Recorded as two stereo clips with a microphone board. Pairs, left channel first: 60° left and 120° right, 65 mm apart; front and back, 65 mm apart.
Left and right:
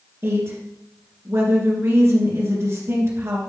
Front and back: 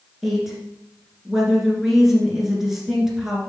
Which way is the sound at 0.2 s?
95° right.